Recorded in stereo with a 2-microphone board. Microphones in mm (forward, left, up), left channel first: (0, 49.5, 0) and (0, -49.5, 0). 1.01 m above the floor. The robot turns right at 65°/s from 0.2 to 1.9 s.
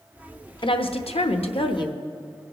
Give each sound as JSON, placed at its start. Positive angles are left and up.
{"t": 0.6, "sound": "a woman speaking", "azimuth_deg": 50, "distance_m": 0.8}